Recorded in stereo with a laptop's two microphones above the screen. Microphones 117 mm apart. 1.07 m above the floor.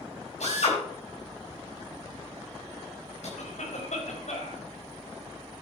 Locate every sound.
0.4 s a drill: 75° left (ahead or behind), 6 m
3.4 s a cough: 85° left, 4.5 m